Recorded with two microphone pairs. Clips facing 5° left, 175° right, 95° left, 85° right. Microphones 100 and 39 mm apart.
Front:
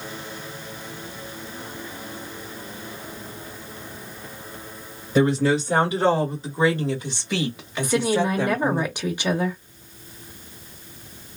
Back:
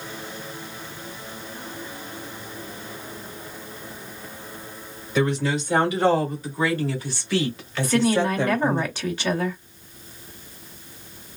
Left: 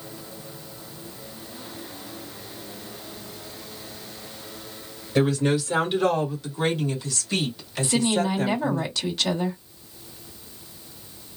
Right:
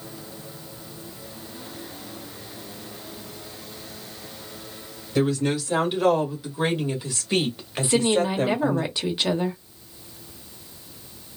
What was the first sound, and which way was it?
A woman speaking, 20° left.